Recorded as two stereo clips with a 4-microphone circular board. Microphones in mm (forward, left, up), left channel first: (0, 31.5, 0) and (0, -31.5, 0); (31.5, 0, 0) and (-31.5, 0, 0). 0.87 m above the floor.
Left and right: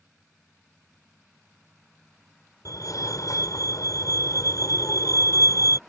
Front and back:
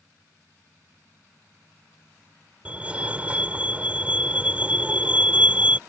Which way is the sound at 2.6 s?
110° left.